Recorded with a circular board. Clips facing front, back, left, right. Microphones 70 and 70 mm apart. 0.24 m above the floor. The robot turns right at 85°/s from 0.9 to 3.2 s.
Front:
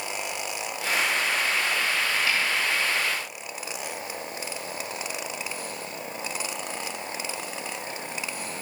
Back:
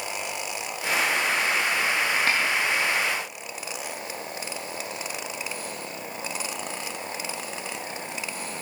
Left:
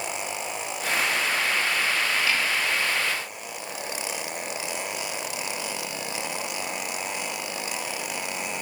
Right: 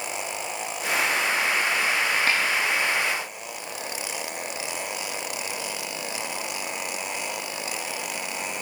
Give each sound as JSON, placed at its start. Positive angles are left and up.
{"t": 2.3, "sound": "a snare drum", "azimuth_deg": -135, "distance_m": 7.5}